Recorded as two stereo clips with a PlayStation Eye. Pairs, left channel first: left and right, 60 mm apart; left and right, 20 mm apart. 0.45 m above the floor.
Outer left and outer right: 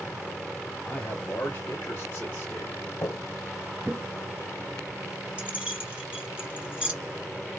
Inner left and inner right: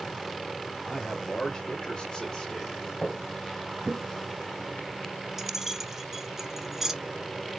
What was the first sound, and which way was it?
A man speaking, 20° left (ahead or behind).